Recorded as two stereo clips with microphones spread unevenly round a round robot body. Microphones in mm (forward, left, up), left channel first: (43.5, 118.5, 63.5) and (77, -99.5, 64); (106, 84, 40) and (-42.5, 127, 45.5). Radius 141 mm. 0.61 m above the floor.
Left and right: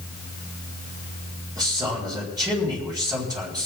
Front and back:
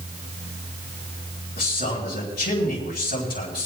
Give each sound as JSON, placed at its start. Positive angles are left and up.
{"t": 1.6, "sound": "a man speaking", "azimuth_deg": -10, "distance_m": 5.0}